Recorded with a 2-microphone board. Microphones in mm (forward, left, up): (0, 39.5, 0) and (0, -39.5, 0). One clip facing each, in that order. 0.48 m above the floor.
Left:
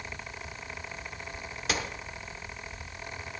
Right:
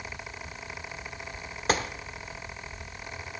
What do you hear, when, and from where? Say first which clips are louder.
1.7 s a gunshot: right 5 dB; 40° right (ahead or behind), 1.1 m